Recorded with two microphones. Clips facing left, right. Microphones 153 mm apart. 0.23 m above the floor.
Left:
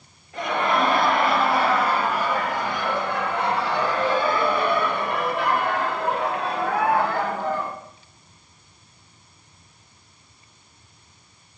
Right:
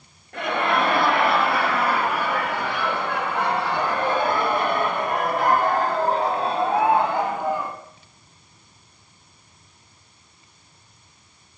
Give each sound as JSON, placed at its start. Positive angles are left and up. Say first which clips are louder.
{"t": 0.3, "sound": "laughter", "louder": "even", "side_deg": -55, "distance_m": 5.0}